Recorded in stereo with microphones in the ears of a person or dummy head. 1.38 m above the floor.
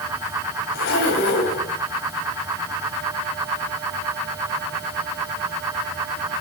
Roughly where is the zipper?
Left.